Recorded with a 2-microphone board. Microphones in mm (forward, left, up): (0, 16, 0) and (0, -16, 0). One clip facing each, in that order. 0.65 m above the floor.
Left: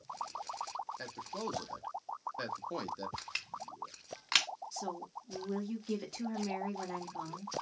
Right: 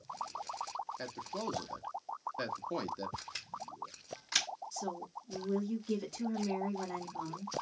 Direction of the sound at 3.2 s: 60° left (ahead or behind).